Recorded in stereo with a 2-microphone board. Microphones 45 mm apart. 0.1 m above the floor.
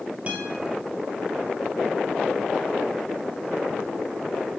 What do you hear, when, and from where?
0.3 s a guitar: 30° right (ahead or behind), 1.9 m